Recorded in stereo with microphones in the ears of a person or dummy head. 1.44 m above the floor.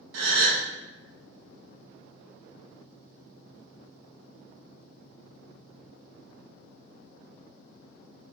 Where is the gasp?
80° right, 0.6 m.